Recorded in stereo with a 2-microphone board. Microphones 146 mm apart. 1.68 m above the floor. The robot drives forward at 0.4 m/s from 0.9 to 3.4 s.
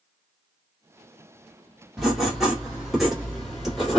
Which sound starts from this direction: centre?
Writing, at 2.0 s.